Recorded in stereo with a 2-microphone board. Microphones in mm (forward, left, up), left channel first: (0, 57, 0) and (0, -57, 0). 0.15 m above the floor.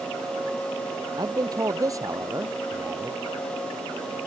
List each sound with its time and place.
1.2 s a man speaking: 35° right (ahead or behind); by 3.2 s 20° right (ahead or behind)